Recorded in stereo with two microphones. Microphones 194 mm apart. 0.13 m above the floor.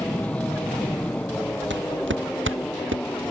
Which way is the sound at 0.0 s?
5° left (ahead or behind).